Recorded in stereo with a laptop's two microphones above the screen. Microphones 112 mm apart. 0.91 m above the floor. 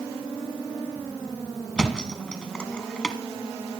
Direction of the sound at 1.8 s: 5° left (ahead or behind).